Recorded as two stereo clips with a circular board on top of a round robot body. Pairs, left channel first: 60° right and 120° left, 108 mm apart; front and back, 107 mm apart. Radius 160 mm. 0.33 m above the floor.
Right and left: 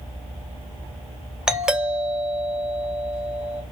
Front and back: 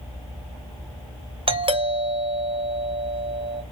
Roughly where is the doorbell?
Behind right.